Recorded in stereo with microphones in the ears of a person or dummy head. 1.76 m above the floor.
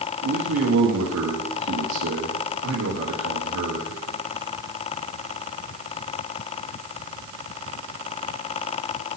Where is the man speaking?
75° right (ahead or behind), 1.2 m.